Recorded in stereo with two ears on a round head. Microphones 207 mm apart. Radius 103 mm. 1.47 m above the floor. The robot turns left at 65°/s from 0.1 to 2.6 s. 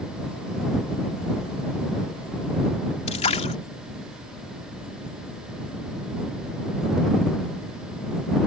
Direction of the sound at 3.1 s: 25° left (ahead or behind).